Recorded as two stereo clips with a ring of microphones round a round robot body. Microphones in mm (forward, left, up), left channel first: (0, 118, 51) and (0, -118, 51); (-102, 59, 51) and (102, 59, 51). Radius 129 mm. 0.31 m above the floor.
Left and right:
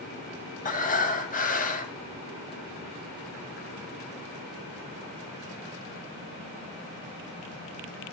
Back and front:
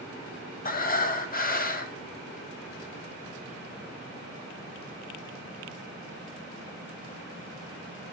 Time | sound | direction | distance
0.7 | breathing | 140° left | 1.8 m